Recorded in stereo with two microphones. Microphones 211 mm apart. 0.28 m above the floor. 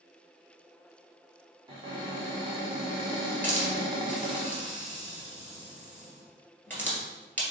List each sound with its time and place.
1.7 s a cupboard door: 25° right (ahead or behind), 1.3 m
3.4 s a hiss: 10° left (ahead or behind), 1.9 m